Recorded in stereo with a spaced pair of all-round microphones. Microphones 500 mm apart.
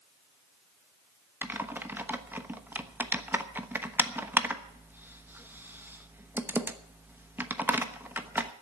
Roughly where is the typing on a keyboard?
Centre.